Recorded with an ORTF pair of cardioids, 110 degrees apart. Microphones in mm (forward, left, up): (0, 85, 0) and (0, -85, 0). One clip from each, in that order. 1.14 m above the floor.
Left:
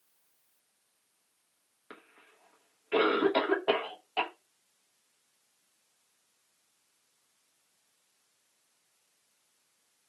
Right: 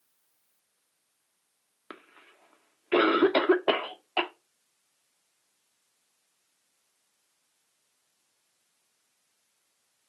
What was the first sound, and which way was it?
A cough, 35° right.